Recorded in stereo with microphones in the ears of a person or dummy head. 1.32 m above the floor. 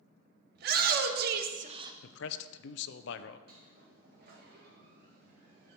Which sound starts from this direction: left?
A man speaking, at 2.0 s.